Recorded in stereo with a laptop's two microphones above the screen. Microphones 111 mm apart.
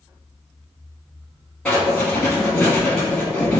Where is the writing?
5° left (ahead or behind), 1.8 m.